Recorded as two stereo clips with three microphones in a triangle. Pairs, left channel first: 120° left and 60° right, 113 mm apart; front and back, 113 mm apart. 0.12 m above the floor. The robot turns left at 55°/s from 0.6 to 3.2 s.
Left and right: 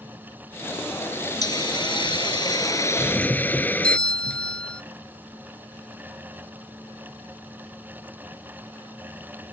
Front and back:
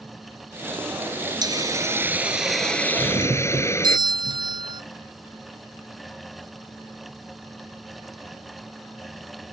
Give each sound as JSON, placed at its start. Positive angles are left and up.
{"t": 1.4, "sound": "a hiss", "azimuth_deg": 150}
{"t": 3.0, "sound": "a doorbell", "azimuth_deg": -150}